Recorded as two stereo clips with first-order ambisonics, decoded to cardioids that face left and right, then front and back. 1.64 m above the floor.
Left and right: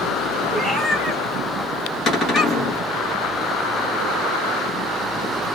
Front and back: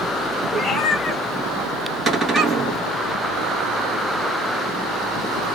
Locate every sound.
0.5 s a cat meowing: 10° right, 1.0 m; by 2.8 s 135° left, 1.2 m
2.1 s a cupboard door: 125° left, 1.0 m